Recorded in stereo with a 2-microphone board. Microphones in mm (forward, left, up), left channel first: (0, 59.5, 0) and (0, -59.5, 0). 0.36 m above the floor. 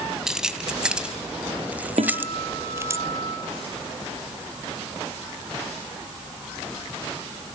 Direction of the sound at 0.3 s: 5° right (ahead or behind).